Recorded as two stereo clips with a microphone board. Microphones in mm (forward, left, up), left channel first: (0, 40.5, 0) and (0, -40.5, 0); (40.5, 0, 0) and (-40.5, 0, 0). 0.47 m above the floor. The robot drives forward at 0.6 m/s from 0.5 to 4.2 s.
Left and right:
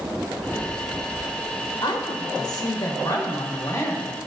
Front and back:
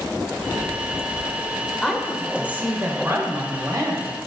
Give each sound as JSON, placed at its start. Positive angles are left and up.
{"t": 1.8, "sound": "a woman speaking", "azimuth_deg": 85, "distance_m": 1.2}